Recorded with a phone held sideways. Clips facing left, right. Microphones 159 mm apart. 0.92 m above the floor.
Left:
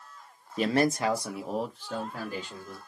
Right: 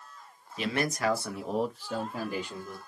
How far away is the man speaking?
About 0.6 m.